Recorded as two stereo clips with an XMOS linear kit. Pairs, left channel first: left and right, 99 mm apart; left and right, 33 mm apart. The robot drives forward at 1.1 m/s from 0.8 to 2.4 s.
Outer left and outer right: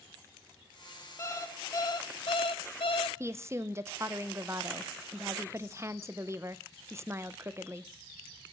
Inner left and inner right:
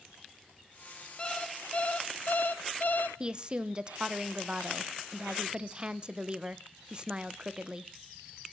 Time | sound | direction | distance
1.2 | an alarm clock | 30° left (ahead or behind) | 2 m
3.2 | a woman speaking | 25° right (ahead or behind) | 0.7 m